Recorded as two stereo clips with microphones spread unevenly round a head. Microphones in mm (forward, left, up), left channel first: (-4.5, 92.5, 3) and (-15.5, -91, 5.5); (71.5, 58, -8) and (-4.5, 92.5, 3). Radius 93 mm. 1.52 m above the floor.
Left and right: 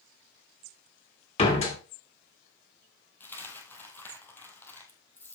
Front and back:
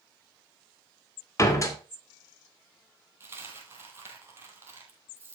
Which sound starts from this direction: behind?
A dropped coin, at 3.2 s.